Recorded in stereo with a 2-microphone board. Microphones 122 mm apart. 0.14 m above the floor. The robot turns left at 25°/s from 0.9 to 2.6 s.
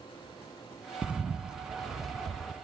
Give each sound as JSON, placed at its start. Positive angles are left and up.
{"t": 1.0, "sound": "a bird", "side_deg": -10, "distance_m": 0.5}